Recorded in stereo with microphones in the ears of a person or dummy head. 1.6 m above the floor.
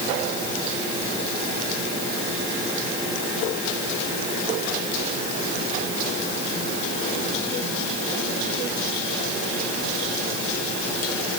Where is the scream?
I don't hear a scream.